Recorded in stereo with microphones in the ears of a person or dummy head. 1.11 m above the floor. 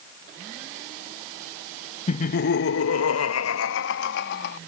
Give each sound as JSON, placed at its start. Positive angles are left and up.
{"t": 2.1, "sound": "laughter", "side_deg": 35}